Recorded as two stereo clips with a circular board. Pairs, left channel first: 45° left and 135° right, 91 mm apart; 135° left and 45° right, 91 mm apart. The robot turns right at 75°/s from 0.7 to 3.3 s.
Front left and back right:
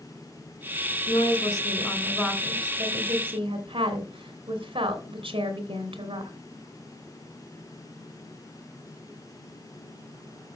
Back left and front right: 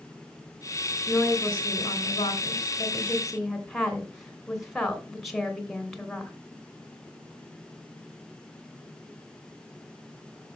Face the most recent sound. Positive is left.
turn(degrees=-135)